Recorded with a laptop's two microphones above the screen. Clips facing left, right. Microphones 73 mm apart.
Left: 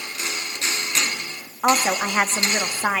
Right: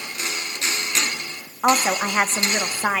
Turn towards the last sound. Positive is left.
turn(degrees=-10)  # may be behind; listen again after turning